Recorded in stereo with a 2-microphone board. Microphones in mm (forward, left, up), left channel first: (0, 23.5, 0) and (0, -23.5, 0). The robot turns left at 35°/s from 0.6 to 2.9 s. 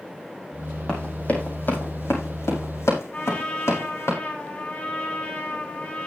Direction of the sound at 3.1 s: 30° left (ahead or behind).